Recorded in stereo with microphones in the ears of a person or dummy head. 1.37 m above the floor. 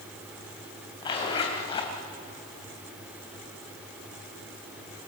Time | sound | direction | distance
1.0 | a zipper | 25° left (ahead or behind) | 3 m